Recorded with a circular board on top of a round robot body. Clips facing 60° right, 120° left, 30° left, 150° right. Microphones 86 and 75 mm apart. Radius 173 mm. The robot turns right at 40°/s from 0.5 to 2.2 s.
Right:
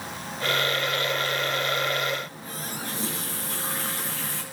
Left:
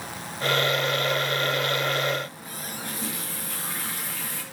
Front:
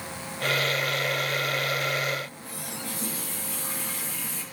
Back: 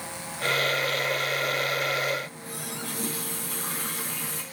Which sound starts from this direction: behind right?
A running tap, at 2.2 s.